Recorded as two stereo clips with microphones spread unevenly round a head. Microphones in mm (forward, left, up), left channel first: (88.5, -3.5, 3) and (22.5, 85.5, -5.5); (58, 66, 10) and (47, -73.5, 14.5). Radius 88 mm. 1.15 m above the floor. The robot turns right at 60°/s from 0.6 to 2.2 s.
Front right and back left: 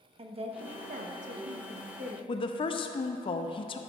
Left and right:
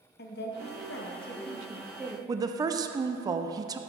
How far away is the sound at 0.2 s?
About 0.9 m.